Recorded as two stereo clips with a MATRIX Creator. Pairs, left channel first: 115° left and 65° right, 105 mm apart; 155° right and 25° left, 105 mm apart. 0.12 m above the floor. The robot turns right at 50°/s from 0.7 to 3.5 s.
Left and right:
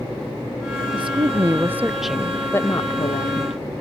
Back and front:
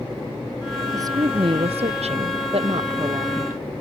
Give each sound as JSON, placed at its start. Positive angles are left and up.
{"t": 0.9, "sound": "a woman speaking", "azimuth_deg": -35}